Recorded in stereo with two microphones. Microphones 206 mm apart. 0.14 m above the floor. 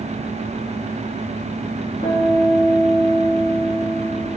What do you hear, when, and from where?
2.0 s a guitar: 50° left (ahead or behind), 5.5 m